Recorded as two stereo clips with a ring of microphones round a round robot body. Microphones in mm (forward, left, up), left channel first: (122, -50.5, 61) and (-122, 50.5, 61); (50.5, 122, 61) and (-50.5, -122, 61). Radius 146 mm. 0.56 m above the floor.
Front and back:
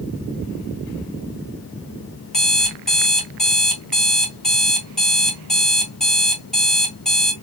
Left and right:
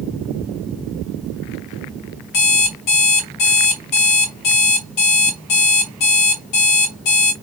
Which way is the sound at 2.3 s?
65° left.